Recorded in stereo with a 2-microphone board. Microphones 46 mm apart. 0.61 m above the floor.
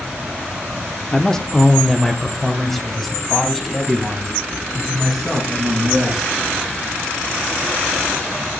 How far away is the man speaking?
About 0.9 m.